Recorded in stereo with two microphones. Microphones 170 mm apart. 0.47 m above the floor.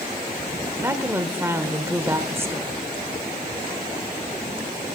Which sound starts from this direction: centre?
A woman speaking, at 0.8 s.